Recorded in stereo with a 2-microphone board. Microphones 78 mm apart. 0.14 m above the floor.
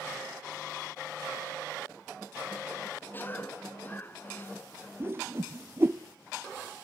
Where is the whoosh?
30° right (ahead or behind), 0.6 m.